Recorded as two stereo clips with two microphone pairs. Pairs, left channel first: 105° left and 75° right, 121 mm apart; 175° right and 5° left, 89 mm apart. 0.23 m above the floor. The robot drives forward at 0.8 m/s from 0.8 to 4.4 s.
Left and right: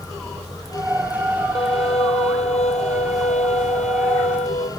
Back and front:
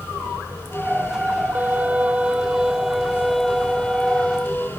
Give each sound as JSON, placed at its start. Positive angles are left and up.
{"t": 1.6, "sound": "a violin", "azimuth_deg": 75}